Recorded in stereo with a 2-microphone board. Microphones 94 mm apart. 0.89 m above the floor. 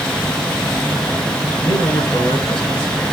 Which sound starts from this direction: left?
A man speaking, at 1.6 s.